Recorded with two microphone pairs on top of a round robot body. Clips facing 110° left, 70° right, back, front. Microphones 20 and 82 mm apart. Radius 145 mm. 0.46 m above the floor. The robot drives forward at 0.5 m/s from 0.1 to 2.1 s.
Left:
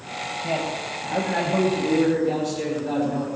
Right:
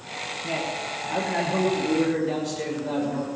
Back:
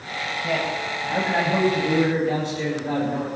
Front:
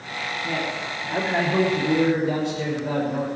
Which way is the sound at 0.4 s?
150° left.